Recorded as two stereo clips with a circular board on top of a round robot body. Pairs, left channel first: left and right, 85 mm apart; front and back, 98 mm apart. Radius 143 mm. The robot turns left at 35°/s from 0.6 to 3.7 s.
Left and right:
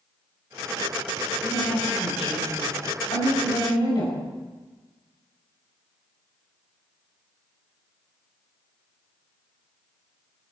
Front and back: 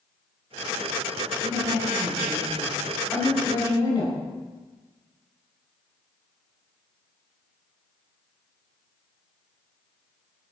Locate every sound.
1.4 s a woman speaking: 135° left, 4 m; by 4.2 s 55° left, 4 m